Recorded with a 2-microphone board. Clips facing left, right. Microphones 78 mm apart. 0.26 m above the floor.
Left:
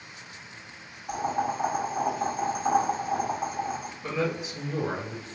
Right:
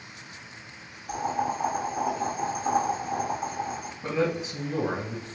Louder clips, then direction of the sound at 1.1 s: Even; 40° left (ahead or behind).